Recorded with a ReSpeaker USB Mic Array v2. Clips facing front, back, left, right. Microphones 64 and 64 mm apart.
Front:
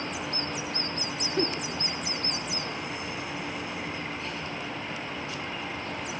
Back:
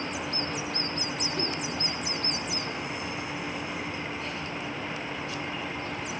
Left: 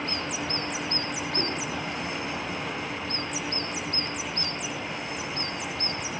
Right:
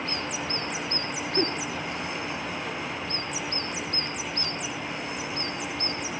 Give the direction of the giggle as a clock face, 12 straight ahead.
1 o'clock.